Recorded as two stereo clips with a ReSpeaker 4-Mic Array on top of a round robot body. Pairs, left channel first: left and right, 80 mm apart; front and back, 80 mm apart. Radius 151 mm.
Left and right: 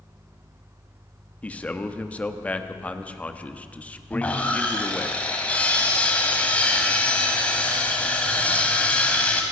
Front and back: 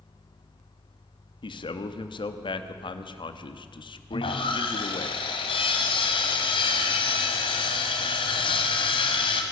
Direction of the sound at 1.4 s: 15° left.